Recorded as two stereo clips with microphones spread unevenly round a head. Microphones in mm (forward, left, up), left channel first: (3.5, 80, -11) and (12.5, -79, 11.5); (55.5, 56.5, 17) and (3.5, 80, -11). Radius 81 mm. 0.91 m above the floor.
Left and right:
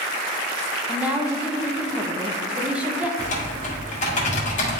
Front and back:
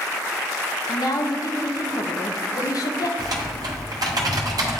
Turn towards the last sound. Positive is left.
turn(degrees=145)